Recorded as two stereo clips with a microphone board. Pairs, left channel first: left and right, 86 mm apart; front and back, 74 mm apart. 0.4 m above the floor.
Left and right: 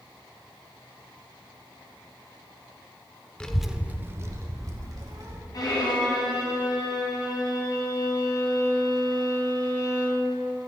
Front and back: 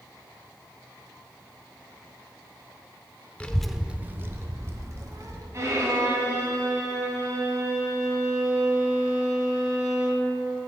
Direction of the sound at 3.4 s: 35° left.